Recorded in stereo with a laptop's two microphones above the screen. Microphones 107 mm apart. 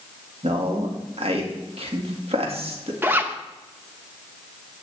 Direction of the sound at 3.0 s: 20° right (ahead or behind).